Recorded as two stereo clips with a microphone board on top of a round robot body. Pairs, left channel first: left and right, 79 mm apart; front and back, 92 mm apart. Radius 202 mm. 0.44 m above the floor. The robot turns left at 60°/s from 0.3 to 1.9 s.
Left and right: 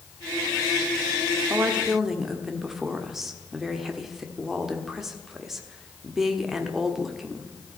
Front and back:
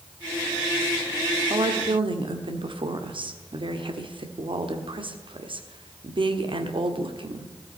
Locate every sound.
1.5 s a woman speaking: 155° right, 1.6 m; by 7.5 s 175° right, 1.6 m